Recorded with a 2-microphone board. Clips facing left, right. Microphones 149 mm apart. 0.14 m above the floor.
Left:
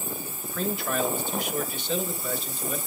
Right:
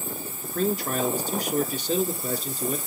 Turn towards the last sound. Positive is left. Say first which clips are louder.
# right 4 dB
turn(degrees=-45)  # may be behind; listen again after turning